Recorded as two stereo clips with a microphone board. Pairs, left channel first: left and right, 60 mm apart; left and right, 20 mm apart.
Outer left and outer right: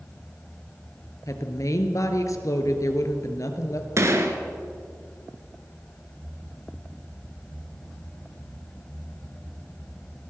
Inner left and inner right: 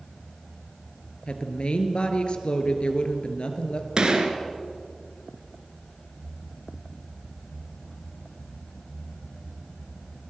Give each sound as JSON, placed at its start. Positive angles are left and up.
{"t": 1.3, "sound": "a woman speaking", "side_deg": 60, "distance_m": 3.0}
{"t": 4.0, "sound": "a gunshot", "side_deg": -50, "distance_m": 2.5}